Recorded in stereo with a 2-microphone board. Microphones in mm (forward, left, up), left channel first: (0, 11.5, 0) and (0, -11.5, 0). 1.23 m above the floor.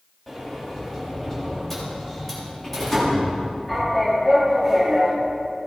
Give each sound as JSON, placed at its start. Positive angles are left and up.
{"t": 0.3, "sound": "a sliding door", "side_deg": 10, "distance_m": 3.0}